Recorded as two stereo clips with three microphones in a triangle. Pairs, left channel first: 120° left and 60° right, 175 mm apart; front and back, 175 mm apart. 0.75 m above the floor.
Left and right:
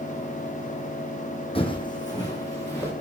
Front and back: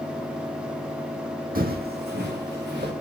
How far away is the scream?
I don't hear a scream.